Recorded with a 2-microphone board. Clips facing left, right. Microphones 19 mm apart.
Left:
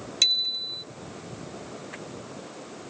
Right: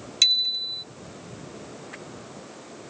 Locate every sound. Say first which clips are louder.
0.2 s a bicycle bell: right 3 dB; 5° right (ahead or behind)